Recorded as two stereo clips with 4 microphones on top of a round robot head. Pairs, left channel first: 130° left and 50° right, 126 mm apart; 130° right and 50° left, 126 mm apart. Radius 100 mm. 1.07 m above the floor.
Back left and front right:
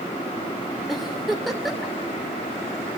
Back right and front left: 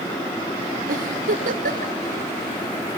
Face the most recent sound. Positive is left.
turn(degrees=40)